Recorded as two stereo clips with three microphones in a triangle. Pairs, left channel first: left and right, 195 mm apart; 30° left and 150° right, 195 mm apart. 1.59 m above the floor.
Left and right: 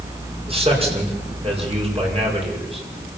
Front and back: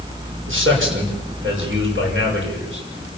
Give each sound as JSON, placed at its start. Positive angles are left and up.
{"t": 0.5, "sound": "a man speaking", "azimuth_deg": -150, "distance_m": 6.5}